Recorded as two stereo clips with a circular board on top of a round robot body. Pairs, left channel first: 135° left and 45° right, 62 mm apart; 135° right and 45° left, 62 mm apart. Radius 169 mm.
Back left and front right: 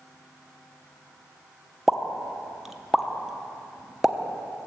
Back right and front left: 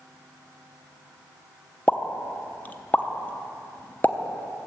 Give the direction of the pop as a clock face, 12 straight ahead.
4 o'clock.